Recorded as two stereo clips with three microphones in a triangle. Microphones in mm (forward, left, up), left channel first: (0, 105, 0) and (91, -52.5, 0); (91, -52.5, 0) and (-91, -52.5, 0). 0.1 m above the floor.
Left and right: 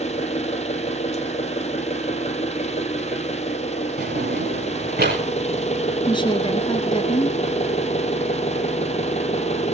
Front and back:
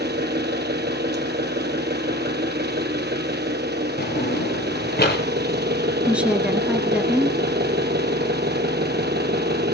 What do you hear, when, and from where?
0.0 s an engine running: 170° left, 1.3 m
4.0 s a drawer: 30° right, 5 m
6.1 s a woman speaking: 105° left, 1.5 m